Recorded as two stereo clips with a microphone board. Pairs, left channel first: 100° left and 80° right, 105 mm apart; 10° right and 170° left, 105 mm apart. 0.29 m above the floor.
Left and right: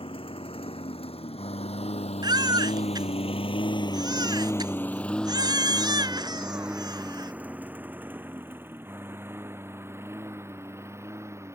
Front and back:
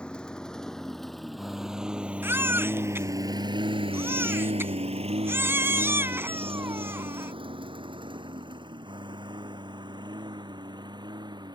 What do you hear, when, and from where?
0.0 s a lawn mower: 70° left; by 11.6 s 145° right
2.2 s a baby crying: 125° right